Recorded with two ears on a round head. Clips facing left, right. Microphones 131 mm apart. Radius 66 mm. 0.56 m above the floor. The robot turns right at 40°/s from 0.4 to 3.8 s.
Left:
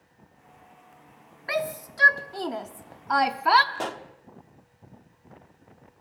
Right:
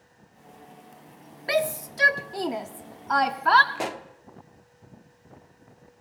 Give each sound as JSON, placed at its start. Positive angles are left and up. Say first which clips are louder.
{"t": 1.5, "sound": "a shout", "louder": "right 4 dB", "side_deg": -30, "distance_m": 0.7}
{"t": 3.8, "sound": "a pop", "louder": "right 1 dB", "side_deg": -10, "distance_m": 1.1}